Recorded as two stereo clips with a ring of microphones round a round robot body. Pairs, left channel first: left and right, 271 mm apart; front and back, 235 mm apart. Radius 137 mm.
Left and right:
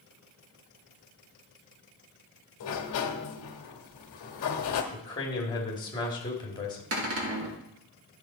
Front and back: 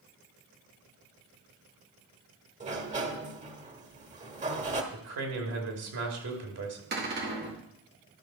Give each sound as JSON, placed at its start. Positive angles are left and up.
{"t": 2.6, "sound": "a sliding door", "azimuth_deg": 120, "distance_m": 1.2}
{"t": 4.9, "sound": "a man speaking", "azimuth_deg": 165, "distance_m": 2.5}
{"t": 6.9, "sound": "a cupboard door", "azimuth_deg": -130, "distance_m": 1.9}